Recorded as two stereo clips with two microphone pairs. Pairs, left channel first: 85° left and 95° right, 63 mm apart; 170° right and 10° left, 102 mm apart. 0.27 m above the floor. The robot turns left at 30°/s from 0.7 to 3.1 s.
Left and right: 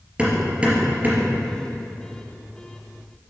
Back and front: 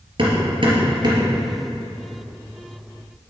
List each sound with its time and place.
0.2 s hammering: 25° right, 3 m; by 1.3 s 40° right, 3 m